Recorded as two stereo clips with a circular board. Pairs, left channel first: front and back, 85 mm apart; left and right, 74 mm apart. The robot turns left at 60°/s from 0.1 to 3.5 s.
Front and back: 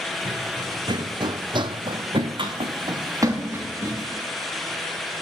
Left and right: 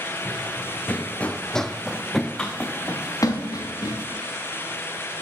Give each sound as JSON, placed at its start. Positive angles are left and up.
{"t": 0.2, "sound": "running footsteps", "azimuth_deg": 175, "distance_m": 0.9}